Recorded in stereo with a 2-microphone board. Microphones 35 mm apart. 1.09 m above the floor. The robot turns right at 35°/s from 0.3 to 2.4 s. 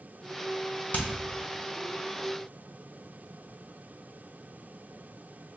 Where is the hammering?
55° left (ahead or behind), 0.6 m.